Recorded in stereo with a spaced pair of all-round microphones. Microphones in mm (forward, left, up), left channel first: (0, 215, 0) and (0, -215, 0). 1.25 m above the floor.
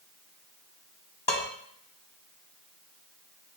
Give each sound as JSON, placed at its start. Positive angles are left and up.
{"t": 1.3, "sound": "dishes clattering", "side_deg": 75, "distance_m": 1.4}